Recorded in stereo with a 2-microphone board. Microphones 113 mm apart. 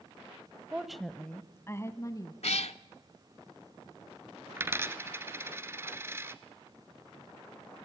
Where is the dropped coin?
25° right (ahead or behind), 1.0 m.